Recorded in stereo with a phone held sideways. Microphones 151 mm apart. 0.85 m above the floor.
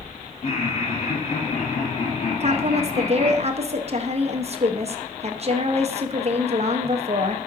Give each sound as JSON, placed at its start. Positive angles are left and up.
{"t": 0.4, "sound": "laughter", "side_deg": 45, "distance_m": 1.5}
{"t": 2.4, "sound": "a woman speaking", "side_deg": -45, "distance_m": 0.7}